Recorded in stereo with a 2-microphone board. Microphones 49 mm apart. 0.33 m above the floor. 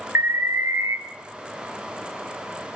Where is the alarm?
65° right (ahead or behind), 2 m.